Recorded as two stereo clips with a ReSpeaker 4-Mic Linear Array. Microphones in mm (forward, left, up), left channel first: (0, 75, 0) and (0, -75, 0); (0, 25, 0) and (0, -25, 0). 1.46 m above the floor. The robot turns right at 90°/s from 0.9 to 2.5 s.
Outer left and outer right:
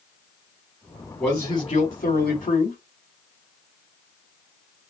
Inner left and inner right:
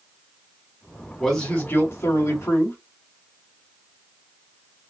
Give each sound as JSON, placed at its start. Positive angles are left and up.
{"t": 1.2, "sound": "a man speaking", "azimuth_deg": 10, "distance_m": 3.0}